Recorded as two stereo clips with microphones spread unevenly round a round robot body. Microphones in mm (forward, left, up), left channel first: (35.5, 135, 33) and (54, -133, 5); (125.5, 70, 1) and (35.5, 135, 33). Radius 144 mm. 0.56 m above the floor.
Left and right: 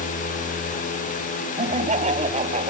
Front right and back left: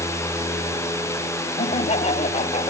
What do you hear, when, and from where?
1.6 s laughter: 20° right